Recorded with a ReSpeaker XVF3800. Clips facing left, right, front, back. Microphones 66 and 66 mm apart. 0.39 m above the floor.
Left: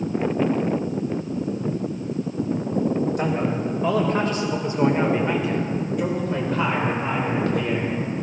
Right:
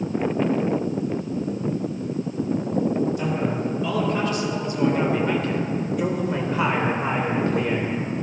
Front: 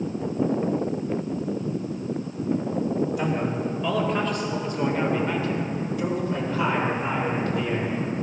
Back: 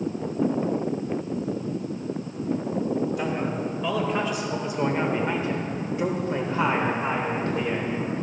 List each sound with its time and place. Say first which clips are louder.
3.2 s a man speaking: left 1 dB, front 1 dB; 90° left, 2.0 m; by 8.0 s 130° right, 1.9 m